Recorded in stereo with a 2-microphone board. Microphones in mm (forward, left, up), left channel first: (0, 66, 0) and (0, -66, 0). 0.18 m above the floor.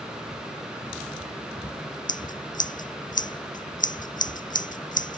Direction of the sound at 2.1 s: 80° left.